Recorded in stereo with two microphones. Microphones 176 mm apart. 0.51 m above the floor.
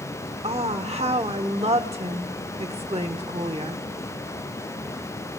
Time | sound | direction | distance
0.4 | a woman speaking | 35° right (ahead or behind) | 1.0 m